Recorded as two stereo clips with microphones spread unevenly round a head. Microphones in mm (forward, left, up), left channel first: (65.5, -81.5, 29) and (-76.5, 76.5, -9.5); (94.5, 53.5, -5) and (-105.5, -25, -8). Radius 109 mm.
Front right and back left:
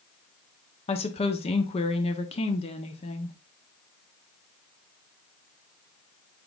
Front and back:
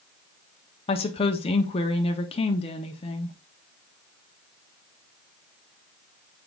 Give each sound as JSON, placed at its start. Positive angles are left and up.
{"t": 0.9, "sound": "a woman speaking", "azimuth_deg": -25, "distance_m": 0.6}